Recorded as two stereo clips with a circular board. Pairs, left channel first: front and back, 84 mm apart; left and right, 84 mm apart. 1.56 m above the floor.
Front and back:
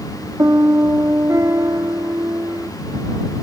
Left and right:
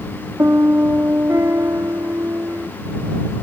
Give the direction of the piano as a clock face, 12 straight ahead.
5 o'clock.